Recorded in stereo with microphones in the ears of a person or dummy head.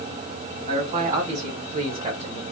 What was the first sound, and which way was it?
A man speaking, 45° right (ahead or behind).